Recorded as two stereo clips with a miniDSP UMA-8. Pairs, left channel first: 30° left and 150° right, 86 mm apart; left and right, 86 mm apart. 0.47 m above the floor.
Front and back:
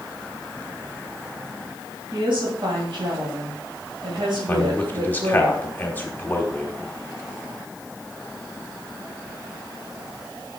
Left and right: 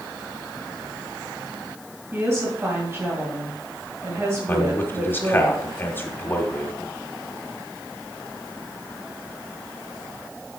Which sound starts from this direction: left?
A man speaking, at 4.5 s.